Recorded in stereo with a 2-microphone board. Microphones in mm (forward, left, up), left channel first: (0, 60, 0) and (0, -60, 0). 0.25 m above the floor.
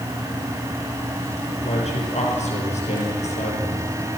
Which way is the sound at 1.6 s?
75° left (ahead or behind).